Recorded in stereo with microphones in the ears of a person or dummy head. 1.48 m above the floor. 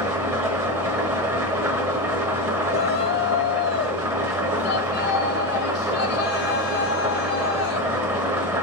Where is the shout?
55° left (ahead or behind), 1.1 m.